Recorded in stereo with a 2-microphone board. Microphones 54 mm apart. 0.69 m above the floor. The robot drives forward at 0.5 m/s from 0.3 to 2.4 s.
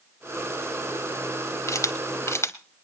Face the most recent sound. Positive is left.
turn(degrees=60)  # may be behind; listen again after turning